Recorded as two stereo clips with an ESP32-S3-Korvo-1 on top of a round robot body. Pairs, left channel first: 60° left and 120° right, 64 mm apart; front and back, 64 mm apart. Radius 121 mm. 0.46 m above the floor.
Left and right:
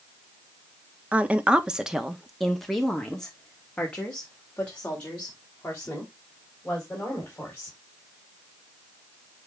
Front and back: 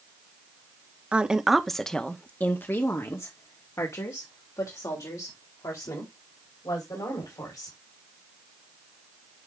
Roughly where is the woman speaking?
Behind right.